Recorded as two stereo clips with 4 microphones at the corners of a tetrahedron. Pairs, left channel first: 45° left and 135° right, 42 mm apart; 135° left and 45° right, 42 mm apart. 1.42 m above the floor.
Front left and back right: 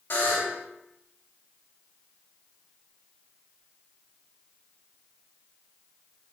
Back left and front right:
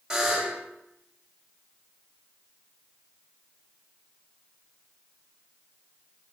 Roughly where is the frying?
No frying in this recording.